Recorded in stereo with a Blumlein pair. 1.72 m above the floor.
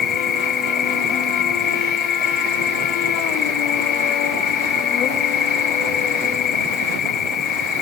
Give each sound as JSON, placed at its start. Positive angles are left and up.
{"t": 0.0, "sound": "an insect", "azimuth_deg": 25}